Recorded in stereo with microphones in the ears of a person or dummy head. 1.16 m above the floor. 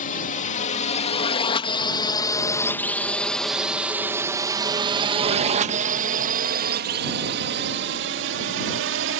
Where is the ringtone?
I don't hear a ringtone.